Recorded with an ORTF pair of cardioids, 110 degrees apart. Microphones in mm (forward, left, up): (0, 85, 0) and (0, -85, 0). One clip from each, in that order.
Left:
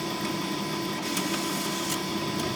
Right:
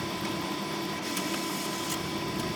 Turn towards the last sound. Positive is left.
turn(degrees=25)